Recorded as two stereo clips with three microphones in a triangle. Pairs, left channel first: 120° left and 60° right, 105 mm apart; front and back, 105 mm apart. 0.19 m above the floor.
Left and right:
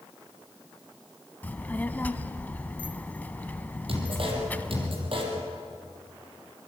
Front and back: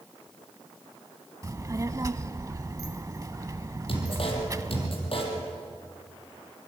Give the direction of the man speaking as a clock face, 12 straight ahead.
1 o'clock.